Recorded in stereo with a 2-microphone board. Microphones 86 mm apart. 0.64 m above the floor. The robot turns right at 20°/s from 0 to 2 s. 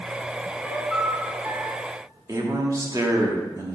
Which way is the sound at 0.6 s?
5° right (ahead or behind).